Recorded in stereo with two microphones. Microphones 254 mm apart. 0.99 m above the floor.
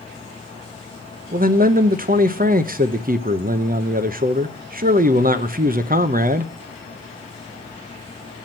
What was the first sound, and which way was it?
A man speaking, 35° right (ahead or behind).